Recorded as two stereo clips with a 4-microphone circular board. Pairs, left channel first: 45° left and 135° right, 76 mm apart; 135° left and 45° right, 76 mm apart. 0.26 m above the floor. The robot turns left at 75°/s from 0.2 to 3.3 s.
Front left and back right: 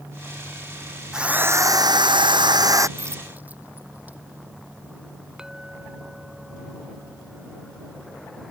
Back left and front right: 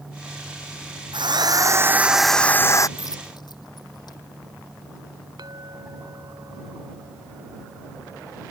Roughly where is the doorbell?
No doorbell in this recording.